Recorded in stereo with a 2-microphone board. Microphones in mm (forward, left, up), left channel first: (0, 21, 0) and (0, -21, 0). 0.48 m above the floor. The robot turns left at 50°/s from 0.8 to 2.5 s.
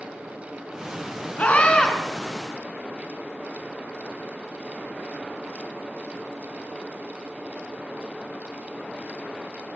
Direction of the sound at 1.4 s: 40° left (ahead or behind).